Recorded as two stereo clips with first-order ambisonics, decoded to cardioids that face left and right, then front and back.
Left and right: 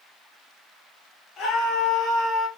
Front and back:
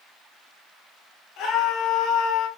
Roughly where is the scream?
Ahead left.